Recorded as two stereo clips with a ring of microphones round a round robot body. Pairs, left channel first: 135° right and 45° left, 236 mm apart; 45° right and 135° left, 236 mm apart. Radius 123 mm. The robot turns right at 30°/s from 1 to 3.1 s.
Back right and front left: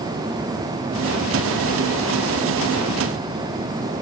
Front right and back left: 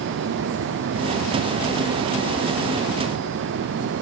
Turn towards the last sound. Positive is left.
No sound to turn to.